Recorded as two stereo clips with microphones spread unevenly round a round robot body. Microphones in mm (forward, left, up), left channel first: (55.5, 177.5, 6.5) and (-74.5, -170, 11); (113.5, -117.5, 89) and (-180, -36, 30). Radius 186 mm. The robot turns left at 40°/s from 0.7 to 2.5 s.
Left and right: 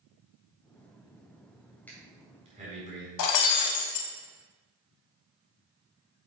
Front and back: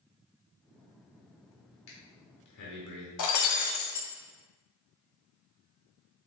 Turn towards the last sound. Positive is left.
turn(degrees=25)